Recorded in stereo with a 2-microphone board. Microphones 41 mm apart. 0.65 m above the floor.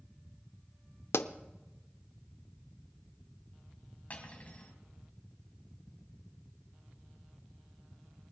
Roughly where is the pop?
Left.